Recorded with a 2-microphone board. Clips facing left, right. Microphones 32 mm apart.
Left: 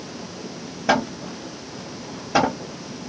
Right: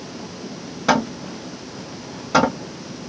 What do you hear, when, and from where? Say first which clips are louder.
0.9 s hammering: right 2 dB; 75° right (ahead or behind), 2 m